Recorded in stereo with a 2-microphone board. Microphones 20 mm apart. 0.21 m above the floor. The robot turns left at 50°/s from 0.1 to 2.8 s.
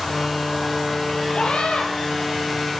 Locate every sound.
1.3 s a scream: 45° left (ahead or behind), 7.5 m; by 1.9 s 70° left (ahead or behind), 7.5 m